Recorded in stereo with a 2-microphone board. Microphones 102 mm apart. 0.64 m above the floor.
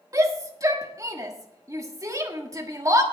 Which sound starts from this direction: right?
A shout, at 0.1 s.